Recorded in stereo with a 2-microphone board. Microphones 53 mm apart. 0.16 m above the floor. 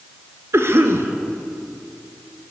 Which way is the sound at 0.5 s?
55° right (ahead or behind).